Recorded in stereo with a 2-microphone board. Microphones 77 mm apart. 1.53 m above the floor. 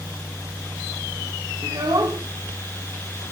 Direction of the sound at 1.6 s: 55° right (ahead or behind).